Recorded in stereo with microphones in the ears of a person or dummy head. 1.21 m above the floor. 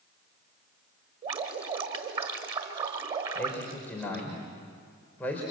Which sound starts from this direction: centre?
A man speaking, at 3.4 s.